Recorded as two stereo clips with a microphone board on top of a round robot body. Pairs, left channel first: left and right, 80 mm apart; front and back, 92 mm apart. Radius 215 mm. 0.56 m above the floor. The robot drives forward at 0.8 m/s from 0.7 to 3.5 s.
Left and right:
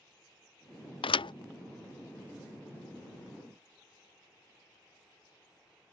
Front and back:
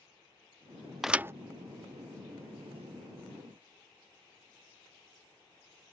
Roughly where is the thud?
Left.